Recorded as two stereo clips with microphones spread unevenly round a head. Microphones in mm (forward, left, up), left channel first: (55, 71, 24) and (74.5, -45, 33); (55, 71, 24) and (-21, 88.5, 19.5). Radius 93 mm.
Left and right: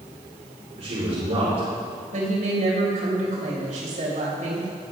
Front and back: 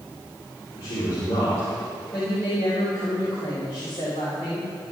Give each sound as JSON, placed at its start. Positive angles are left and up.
{"t": 0.8, "sound": "a man speaking", "azimuth_deg": -45, "distance_m": 4.5}
{"t": 2.1, "sound": "a woman speaking", "azimuth_deg": -65, "distance_m": 5.5}